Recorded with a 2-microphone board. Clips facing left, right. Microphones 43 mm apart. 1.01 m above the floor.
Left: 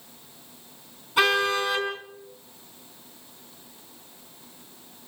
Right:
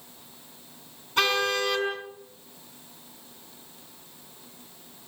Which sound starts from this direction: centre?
A car horn, at 1.2 s.